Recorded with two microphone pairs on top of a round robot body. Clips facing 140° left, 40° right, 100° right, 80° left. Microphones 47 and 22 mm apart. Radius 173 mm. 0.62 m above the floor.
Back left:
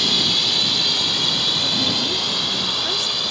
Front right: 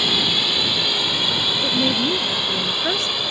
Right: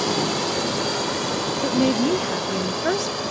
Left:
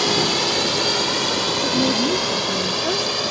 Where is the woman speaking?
85° right.